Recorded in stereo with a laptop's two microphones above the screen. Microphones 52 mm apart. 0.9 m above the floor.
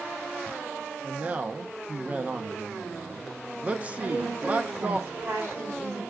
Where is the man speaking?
25° right (ahead or behind), 0.7 m.